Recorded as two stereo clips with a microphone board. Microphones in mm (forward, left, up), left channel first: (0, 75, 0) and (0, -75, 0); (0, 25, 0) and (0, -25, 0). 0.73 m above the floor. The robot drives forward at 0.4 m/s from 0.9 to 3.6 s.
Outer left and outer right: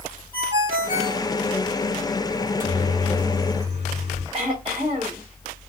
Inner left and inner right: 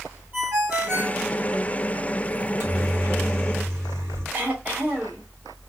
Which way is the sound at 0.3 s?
35° right (ahead or behind).